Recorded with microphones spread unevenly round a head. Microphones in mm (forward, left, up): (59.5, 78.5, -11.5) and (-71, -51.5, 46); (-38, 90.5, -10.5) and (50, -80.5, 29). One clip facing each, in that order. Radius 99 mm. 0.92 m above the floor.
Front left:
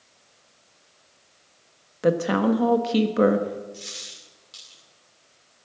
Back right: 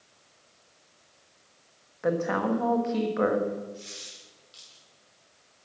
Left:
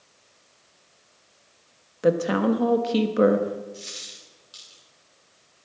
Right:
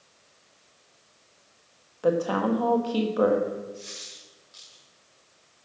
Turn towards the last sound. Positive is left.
turn(degrees=70)